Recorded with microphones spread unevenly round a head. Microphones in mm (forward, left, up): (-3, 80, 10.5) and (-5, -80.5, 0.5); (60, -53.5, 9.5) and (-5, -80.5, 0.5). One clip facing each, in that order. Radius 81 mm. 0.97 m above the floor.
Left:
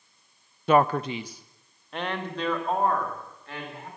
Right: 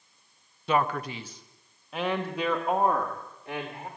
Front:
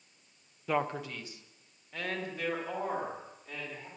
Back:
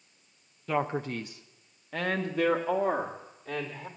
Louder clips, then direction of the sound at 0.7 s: Left 6 dB, back 2 dB; 110° left.